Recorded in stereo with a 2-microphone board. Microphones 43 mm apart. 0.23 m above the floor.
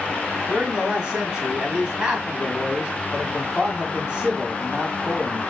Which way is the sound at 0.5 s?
25° right (ahead or behind).